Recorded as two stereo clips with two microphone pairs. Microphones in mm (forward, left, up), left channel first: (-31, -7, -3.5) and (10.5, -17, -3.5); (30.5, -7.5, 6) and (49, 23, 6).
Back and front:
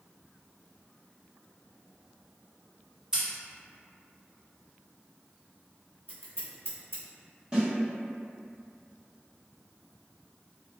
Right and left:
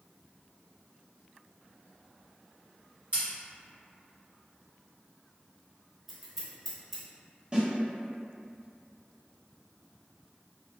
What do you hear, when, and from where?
3.1 s scissors: 45° left, 1.3 m
6.1 s scissors: 140° left, 0.7 m
7.5 s a snare drum: 40° left, 1.4 m